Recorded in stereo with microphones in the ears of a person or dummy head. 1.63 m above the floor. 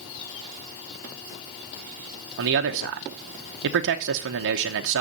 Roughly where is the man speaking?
Right.